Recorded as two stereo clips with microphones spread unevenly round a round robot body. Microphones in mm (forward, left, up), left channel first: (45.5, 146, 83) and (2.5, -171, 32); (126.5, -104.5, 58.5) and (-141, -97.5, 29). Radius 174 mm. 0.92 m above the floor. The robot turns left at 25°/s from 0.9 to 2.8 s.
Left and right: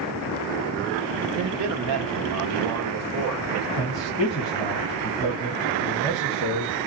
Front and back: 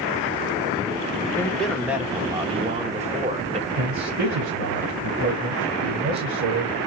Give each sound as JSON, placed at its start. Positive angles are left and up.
{"t": 1.4, "sound": "a man speaking", "azimuth_deg": -85, "distance_m": 1.5}
{"t": 3.8, "sound": "a man speaking", "azimuth_deg": 175, "distance_m": 1.8}